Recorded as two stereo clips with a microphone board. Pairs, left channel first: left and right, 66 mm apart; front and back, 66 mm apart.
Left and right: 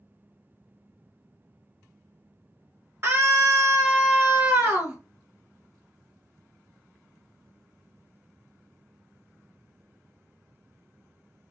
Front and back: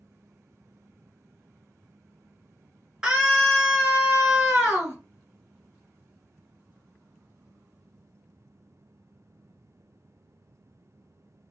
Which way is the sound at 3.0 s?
105° right.